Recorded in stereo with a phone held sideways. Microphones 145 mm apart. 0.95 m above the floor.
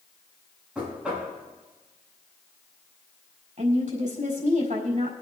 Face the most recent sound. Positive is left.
turn(degrees=-65)  # may be behind; listen again after turning